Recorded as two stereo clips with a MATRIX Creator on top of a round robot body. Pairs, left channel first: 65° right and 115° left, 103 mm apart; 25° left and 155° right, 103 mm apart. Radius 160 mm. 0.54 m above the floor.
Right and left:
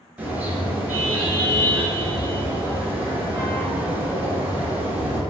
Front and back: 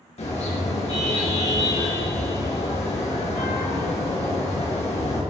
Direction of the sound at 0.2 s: 35° left.